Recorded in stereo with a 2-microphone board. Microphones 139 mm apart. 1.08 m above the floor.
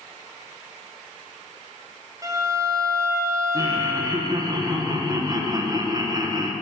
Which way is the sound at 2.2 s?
25° right (ahead or behind).